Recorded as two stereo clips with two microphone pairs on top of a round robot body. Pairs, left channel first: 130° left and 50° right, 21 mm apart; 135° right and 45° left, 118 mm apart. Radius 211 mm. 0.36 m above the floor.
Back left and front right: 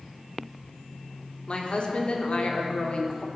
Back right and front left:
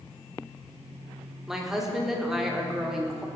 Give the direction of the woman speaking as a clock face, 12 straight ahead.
8 o'clock.